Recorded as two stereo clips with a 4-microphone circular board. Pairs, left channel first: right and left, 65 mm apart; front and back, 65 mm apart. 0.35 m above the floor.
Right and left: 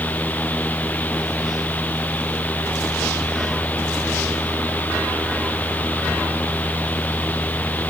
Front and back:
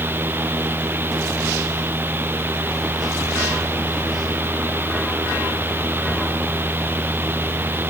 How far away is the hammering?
No hammering in this recording.